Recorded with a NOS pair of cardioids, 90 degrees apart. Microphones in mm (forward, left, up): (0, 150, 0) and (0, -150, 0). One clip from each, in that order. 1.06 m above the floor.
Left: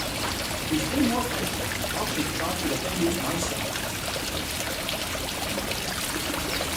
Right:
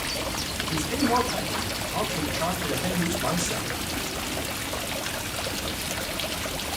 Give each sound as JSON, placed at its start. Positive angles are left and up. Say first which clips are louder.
{"t": 0.6, "sound": "a man speaking", "louder": "left 1 dB", "azimuth_deg": -40, "distance_m": 5.5}